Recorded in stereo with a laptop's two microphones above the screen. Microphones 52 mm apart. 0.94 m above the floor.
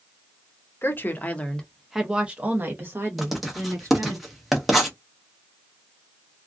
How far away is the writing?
About 0.6 m.